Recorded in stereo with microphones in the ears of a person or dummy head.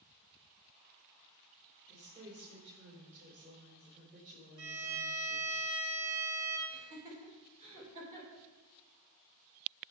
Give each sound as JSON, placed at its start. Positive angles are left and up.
{"t": 1.9, "sound": "a woman speaking", "side_deg": -40, "distance_m": 3.5}
{"t": 4.6, "sound": "a violin", "side_deg": -80, "distance_m": 1.0}
{"t": 6.7, "sound": "laughter", "side_deg": -40, "distance_m": 4.0}